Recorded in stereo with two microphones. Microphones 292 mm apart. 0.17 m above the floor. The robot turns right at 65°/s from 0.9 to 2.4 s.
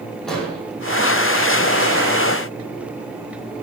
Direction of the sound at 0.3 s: 5° left (ahead or behind).